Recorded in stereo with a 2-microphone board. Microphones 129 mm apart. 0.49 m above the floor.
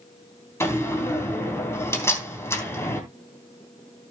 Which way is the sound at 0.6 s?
20° left (ahead or behind).